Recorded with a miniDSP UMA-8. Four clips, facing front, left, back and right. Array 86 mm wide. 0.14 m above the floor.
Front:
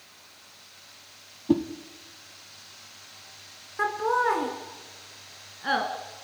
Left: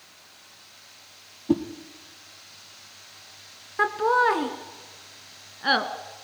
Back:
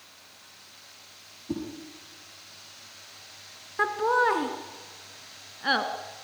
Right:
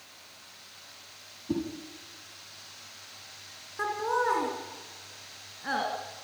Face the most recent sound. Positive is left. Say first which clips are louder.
# left 7 dB, back 1 dB
turn(degrees=105)